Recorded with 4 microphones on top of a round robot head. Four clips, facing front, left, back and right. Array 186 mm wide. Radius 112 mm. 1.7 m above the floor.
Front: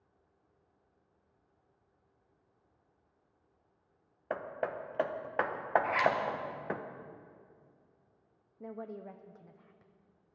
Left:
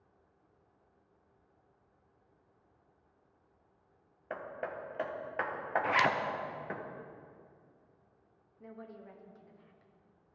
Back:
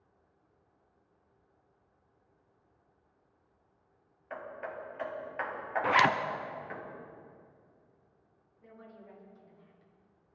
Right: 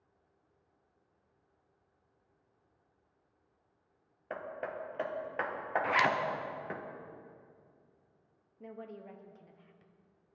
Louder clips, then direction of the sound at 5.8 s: Even, back 9 dB; 175° left.